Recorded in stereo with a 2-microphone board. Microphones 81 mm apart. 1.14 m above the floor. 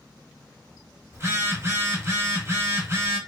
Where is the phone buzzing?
35° right (ahead or behind), 0.8 m.